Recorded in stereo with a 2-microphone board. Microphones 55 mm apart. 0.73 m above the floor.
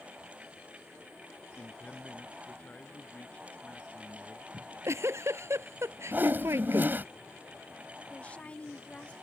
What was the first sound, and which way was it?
A man speaking, 25° left (ahead or behind).